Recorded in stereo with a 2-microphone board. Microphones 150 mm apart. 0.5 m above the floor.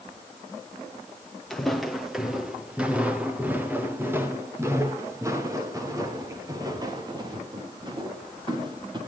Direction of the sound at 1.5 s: 5° left (ahead or behind).